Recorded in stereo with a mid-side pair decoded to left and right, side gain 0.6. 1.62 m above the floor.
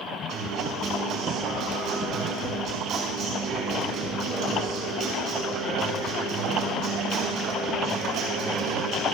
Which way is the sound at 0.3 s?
60° right.